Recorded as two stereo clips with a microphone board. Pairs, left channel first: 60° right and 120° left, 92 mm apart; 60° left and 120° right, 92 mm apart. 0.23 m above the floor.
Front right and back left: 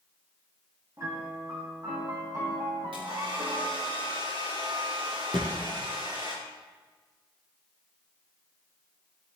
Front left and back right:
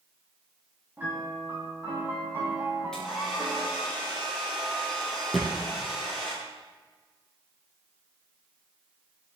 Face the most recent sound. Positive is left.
turn(degrees=150)